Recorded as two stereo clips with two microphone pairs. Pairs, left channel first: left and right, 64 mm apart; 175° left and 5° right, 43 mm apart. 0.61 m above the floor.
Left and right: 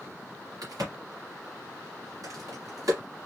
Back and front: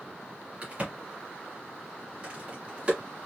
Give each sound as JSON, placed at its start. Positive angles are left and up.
{"t": 0.6, "sound": "a crack", "azimuth_deg": -70, "distance_m": 1.8}